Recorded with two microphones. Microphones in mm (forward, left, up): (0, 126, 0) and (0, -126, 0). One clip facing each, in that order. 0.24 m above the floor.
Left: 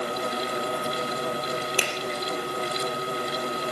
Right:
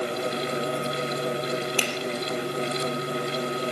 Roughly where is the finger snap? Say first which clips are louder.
Right 1 dB; centre.